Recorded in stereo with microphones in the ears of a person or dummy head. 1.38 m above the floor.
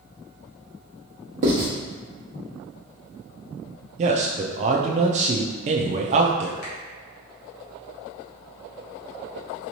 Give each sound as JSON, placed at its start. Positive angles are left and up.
{"t": 1.4, "sound": "writing", "side_deg": -40, "distance_m": 1.0}
{"t": 4.0, "sound": "a man speaking", "side_deg": -40, "distance_m": 0.5}
{"t": 6.6, "sound": "a finger snap", "side_deg": 50, "distance_m": 1.6}